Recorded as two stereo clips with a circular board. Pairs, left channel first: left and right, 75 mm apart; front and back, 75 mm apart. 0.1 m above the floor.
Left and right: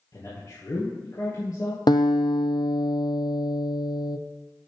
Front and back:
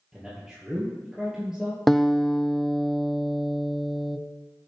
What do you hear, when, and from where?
0.1 s a man speaking: 100° left, 2.5 m
1.9 s a guitar: 85° left, 0.7 m